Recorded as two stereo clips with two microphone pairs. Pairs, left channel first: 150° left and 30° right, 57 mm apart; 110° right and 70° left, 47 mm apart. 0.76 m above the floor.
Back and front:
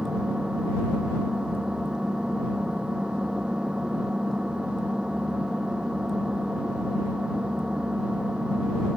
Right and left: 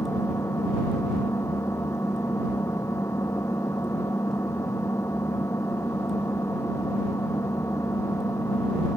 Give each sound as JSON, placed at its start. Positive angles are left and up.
{"t": 0.0, "sound": "an engine running", "azimuth_deg": -105}